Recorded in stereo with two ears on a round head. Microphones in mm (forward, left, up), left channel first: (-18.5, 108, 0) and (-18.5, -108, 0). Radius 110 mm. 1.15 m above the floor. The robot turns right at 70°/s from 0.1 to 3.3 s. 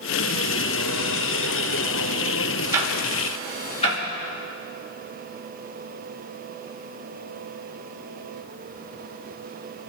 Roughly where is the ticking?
Centre.